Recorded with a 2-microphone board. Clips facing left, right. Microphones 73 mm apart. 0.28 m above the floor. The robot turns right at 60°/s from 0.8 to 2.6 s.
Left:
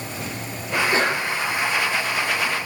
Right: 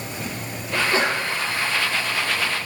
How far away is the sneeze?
About 6.5 m.